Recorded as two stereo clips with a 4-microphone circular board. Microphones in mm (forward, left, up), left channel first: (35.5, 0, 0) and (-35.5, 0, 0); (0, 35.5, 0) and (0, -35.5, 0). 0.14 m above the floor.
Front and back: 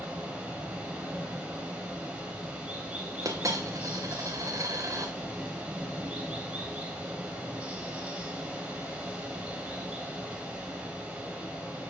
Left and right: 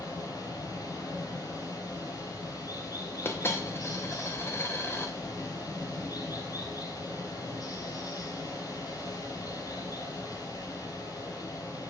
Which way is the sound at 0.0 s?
110° left.